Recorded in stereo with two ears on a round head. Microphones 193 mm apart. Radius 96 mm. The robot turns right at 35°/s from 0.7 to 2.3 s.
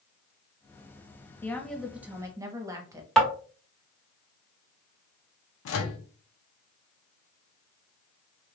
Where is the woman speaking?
170° left, 0.8 m; by 3.1 s 160° right, 0.8 m.